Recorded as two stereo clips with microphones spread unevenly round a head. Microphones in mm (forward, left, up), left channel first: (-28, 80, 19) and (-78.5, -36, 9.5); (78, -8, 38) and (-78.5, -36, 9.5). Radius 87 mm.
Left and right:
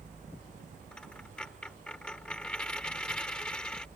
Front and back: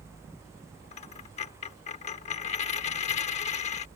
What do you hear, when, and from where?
0.9 s a dropped coin: 10° right